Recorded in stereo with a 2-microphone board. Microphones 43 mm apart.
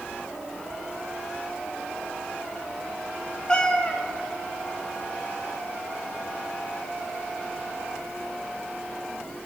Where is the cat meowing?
20° left (ahead or behind), 0.6 m.